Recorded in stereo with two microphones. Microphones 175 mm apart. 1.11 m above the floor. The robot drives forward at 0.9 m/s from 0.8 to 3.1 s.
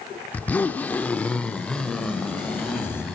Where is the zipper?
10° left (ahead or behind), 0.7 m; by 3.2 s 5° left (ahead or behind), 2.5 m.